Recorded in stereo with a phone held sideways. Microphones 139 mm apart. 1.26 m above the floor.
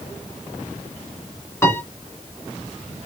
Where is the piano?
20° left (ahead or behind), 2.5 m.